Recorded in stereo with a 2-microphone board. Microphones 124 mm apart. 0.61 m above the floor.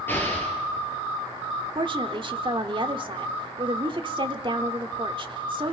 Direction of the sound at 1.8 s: 40° right (ahead or behind).